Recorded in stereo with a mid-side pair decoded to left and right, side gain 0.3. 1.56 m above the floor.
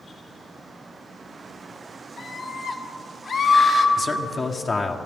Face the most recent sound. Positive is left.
turn(degrees=55)